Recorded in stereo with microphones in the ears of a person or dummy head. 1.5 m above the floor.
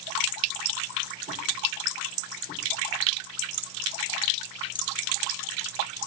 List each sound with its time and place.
Only background noise.